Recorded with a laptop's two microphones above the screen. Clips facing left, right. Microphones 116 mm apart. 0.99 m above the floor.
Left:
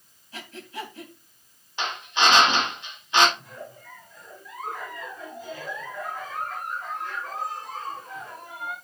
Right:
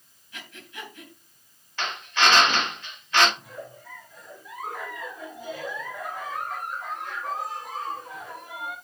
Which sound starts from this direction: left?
Breathing, at 0.3 s.